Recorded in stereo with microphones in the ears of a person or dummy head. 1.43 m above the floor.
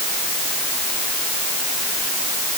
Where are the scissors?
I don't hear scissors.